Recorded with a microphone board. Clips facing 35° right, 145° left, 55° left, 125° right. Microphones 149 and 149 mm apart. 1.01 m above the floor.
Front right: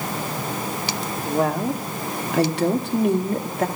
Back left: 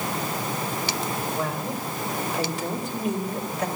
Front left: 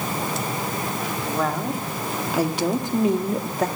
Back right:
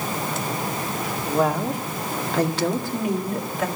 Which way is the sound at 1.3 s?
50° right.